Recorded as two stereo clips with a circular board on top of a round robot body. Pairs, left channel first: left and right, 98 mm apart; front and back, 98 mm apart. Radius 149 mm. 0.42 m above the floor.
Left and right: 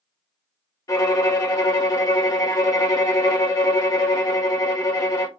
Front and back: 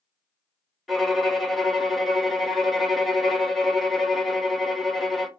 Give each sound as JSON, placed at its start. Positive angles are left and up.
{"t": 0.9, "sound": "a violin", "azimuth_deg": 90, "distance_m": 1.0}